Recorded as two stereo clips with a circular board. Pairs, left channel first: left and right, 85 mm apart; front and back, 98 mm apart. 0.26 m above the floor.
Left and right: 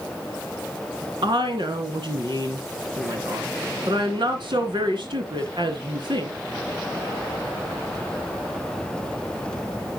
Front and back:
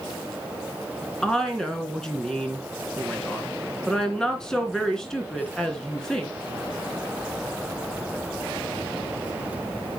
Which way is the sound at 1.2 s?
85° right.